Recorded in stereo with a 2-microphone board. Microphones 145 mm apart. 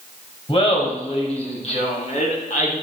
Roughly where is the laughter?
Left.